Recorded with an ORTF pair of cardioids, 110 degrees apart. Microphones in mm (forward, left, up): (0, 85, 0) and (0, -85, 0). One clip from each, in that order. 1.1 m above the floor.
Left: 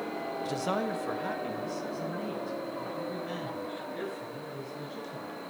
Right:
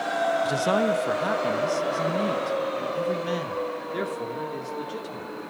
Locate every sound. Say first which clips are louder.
0.5 s a man speaking: right 8 dB; 30° right, 1.1 m; by 5.3 s 75° right, 3.5 m